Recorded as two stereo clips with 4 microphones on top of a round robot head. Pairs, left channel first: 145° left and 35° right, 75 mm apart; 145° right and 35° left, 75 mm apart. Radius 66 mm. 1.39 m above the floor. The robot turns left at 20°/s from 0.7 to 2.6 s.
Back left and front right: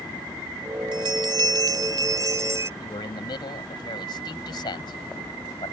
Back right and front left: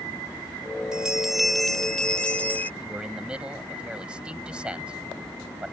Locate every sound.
0.9 s a bell: 40° right; by 2.7 s 75° right
2.8 s a man speaking: 115° left